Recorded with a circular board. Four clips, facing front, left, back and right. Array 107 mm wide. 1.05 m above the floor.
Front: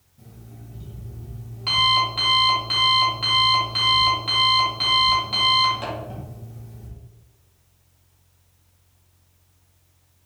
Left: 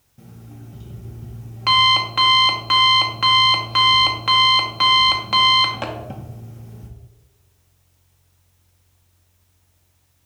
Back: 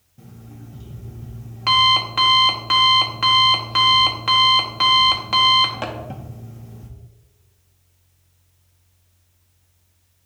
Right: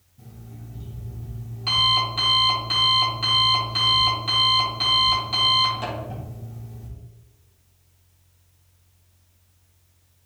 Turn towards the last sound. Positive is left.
turn(degrees=130)